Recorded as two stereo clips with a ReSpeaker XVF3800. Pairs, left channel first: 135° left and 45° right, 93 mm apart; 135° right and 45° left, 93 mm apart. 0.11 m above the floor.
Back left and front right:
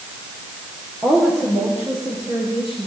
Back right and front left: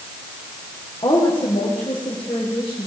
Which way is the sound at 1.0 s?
105° right.